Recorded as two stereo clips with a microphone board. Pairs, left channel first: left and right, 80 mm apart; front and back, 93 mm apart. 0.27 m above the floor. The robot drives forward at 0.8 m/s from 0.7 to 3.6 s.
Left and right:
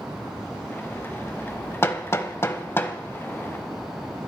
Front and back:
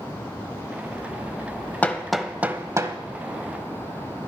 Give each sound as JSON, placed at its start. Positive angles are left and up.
{"t": 1.8, "sound": "hammering", "azimuth_deg": 60, "distance_m": 0.8}